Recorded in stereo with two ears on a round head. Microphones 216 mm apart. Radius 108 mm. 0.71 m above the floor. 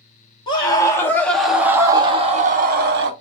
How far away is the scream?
About 1.8 m.